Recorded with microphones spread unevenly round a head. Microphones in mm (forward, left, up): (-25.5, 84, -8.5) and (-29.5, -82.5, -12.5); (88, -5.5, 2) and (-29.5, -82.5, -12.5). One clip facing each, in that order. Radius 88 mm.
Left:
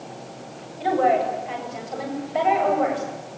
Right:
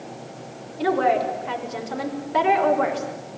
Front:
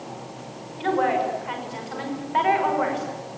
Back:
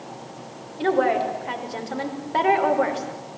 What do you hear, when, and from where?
0.8 s a woman speaking: 100° right, 6 m